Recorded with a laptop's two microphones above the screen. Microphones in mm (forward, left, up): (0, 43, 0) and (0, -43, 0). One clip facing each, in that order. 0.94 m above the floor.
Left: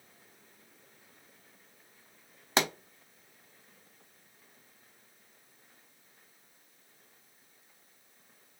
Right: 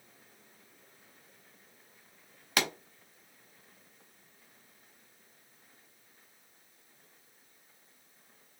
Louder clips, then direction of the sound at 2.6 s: Left 3 dB; 25° left (ahead or behind).